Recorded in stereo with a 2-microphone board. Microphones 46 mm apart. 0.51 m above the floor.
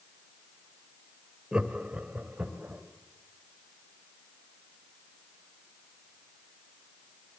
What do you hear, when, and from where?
1.5 s laughter: 20° right (ahead or behind), 2.5 m; by 2.8 s 35° right (ahead or behind), 3.5 m